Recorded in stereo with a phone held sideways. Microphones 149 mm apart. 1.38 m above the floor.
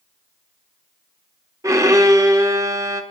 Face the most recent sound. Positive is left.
turn(degrees=-20)  # may be behind; listen again after turning